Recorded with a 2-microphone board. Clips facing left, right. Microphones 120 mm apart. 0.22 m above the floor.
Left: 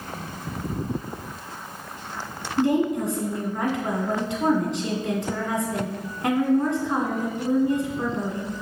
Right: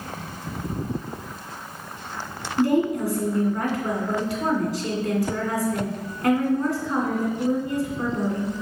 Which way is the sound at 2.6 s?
25° left (ahead or behind).